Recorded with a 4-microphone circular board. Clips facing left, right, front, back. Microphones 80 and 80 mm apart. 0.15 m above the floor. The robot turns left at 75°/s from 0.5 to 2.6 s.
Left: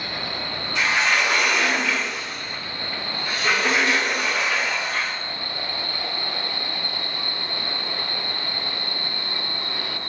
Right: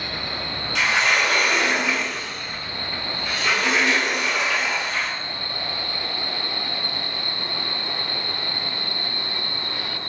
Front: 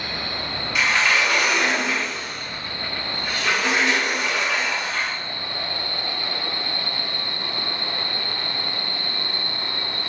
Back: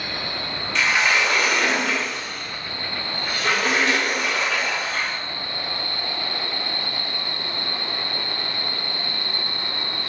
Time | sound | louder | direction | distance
0.8 | a sliding door | right 1 dB, even | 85° right | 1.6 m